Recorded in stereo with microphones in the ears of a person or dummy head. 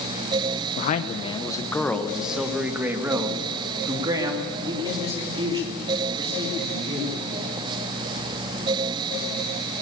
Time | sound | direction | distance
0.8 | a man speaking | 50° left (ahead or behind) | 0.9 m